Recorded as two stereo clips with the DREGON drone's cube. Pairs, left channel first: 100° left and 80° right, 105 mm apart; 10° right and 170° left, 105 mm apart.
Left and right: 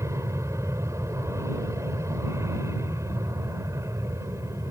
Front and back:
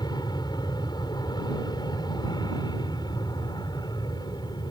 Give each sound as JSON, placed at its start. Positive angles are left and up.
{"t": 0.0, "sound": "an aircraft", "azimuth_deg": -30}